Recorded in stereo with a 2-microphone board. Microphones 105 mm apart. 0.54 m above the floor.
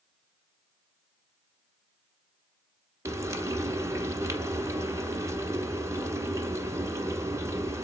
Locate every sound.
3.0 s frying: 30° right (ahead or behind), 0.9 m